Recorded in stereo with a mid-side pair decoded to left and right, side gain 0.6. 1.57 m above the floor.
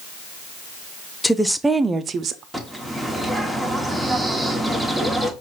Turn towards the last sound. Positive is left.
turn(degrees=0)